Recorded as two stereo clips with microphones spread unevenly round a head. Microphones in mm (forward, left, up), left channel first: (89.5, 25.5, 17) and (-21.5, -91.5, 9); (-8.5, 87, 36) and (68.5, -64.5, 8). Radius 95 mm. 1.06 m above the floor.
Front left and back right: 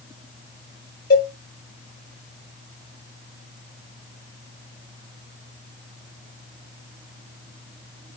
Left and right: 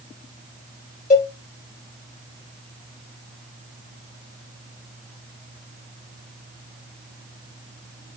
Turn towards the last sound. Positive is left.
turn(degrees=80)